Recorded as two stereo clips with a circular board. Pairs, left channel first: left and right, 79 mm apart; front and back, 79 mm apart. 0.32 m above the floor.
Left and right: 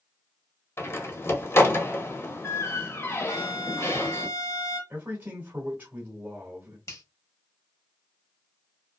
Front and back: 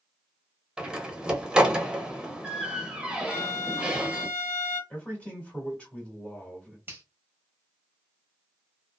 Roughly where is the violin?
Ahead left.